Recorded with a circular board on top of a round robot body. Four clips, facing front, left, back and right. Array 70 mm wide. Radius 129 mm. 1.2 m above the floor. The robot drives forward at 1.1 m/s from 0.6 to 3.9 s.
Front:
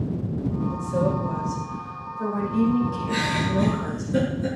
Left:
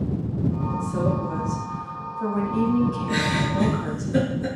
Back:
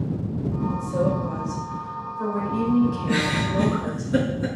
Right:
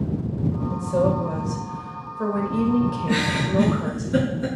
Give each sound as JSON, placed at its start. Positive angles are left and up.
{"t": 0.7, "sound": "a woman speaking", "azimuth_deg": -75, "distance_m": 7.5}
{"t": 3.1, "sound": "a giggle", "azimuth_deg": -120, "distance_m": 4.5}